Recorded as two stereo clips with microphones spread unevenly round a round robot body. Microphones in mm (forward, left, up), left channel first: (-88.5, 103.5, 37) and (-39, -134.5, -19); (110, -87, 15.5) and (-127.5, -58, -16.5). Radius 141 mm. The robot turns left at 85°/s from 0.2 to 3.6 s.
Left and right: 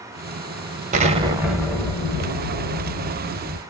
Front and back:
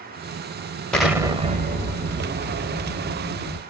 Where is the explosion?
100° right, 0.8 m; by 3.6 s 35° left, 0.8 m.